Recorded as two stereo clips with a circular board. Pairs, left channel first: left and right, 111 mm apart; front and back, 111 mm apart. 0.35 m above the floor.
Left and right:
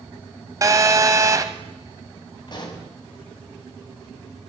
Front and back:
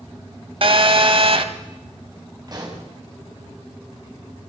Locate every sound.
0.6 s a phone buzzing: 150° right, 1.0 m
2.5 s a pop: 135° left, 3 m